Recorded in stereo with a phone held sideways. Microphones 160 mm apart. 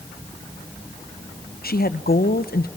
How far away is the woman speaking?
About 0.9 m.